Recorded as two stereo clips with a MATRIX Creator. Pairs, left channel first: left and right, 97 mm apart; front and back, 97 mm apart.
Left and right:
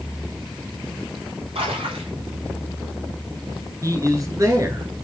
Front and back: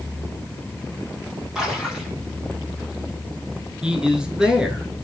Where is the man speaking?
105° right, 1.3 m.